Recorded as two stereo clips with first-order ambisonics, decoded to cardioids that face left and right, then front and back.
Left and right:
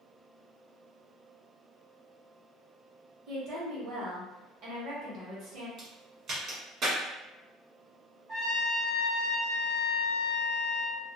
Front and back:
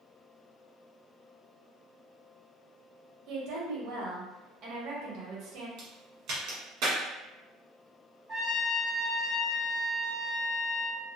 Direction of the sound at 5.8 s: 150° right.